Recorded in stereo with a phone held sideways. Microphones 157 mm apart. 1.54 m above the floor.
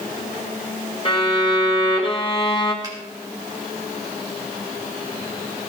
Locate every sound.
1.1 s a violin: 30° left (ahead or behind), 2 m
2.8 s a finger snap: 25° right (ahead or behind), 4 m